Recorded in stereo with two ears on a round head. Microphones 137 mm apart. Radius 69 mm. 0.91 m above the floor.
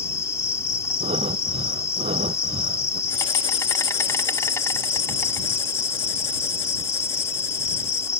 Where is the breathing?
40° right (ahead or behind).